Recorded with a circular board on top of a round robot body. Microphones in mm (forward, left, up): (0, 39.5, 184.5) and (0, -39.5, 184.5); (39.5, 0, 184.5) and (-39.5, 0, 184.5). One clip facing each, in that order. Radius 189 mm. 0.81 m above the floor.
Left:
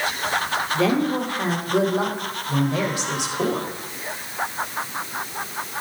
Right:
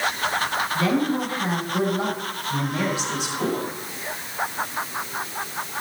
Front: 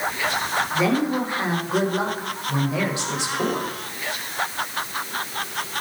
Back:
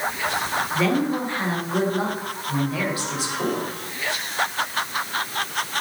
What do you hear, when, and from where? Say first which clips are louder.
0.7 s a woman speaking: left 2 dB, even; 75° left, 3.5 m; by 3.7 s 65° left, 5 m